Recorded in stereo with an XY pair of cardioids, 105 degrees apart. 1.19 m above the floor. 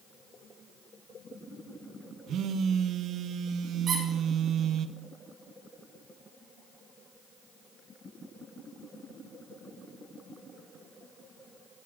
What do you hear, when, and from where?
2.3 s a phone buzzing: 70° right, 0.6 m
3.9 s a squeak: 50° right, 5 m